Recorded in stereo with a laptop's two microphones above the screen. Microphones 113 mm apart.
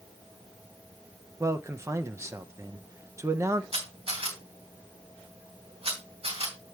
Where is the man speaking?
25° right (ahead or behind), 0.6 m.